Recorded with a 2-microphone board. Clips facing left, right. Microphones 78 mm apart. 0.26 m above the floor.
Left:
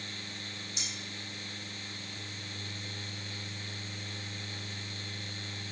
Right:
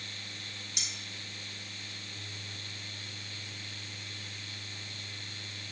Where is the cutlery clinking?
75° right (ahead or behind), 2.5 m.